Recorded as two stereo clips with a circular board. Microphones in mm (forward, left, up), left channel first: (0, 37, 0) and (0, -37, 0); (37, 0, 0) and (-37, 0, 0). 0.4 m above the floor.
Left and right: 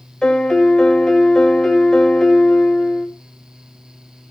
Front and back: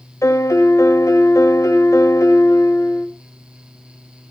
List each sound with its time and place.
0.2 s a piano: 10° left, 1.7 m